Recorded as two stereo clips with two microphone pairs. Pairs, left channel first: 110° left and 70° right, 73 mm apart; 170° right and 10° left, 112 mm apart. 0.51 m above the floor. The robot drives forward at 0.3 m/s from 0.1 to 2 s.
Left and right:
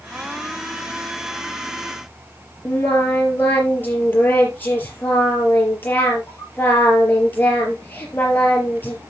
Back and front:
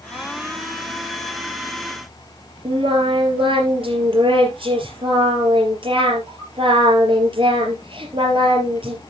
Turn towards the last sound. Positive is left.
turn(degrees=45)